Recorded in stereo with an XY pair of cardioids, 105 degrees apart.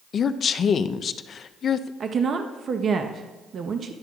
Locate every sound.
0.1 s a woman speaking: 50° left, 0.5 m
2.0 s a woman speaking: 45° right, 0.7 m